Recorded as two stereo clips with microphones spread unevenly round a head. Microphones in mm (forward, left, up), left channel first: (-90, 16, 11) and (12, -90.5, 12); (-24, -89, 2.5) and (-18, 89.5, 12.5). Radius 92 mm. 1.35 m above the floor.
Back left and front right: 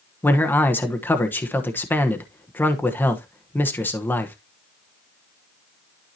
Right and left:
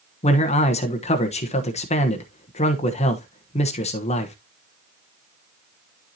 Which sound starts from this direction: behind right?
A man speaking, at 0.2 s.